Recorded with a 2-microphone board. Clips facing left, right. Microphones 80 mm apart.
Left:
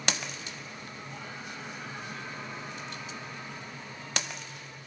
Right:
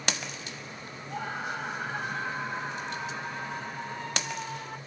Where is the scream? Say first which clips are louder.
Right 12 dB; 50° right (ahead or behind); by 4.8 s 55° right (ahead or behind).